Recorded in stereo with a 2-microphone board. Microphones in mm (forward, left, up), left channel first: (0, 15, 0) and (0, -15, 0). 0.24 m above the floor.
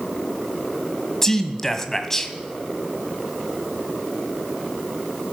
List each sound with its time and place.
1.2 s a man speaking: 15° left (ahead or behind), 1.3 m